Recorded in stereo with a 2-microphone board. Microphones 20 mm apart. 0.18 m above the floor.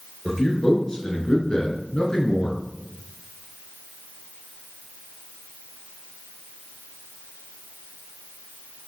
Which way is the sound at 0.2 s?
30° left (ahead or behind).